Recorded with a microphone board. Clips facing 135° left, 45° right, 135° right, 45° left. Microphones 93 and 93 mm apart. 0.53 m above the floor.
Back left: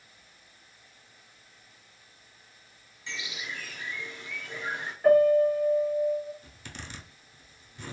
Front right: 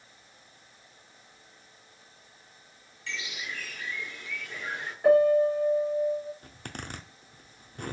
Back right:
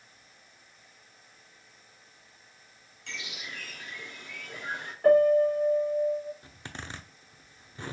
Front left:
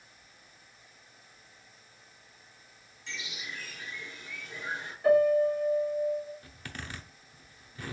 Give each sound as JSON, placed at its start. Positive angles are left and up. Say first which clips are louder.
{"t": 3.1, "sound": "a bird", "louder": "front right 1 dB, even", "azimuth_deg": -155, "distance_m": 0.9}
{"t": 5.0, "sound": "a piano", "louder": "back left 1 dB, back right 3 dB", "azimuth_deg": -125, "distance_m": 1.8}
{"t": 6.4, "sound": "a zipper", "louder": "front right 4 dB, back right 1 dB", "azimuth_deg": -75, "distance_m": 0.6}